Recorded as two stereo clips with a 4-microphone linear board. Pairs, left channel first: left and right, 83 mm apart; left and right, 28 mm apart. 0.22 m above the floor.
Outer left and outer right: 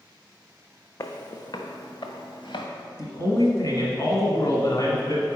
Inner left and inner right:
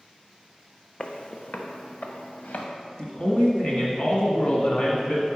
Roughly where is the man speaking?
Left.